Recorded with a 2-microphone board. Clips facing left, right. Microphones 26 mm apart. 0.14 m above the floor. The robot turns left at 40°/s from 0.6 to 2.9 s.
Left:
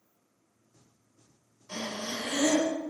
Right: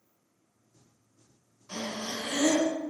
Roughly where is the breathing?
Centre.